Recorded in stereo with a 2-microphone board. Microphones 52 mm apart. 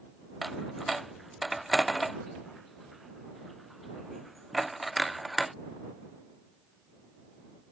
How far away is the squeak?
I don't hear a squeak.